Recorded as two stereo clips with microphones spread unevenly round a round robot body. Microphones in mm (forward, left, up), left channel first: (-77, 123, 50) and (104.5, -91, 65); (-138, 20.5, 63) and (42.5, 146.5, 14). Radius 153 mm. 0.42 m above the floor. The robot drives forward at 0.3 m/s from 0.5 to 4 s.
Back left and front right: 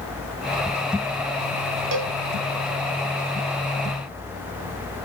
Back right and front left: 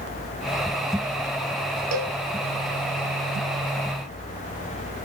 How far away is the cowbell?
About 0.8 m.